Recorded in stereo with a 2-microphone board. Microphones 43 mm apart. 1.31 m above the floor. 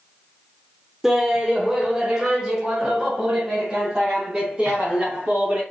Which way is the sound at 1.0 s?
10° right (ahead or behind).